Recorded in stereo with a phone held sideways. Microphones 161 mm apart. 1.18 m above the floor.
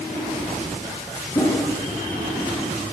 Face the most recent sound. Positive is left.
turn(degrees=25)  # may be behind; listen again after turning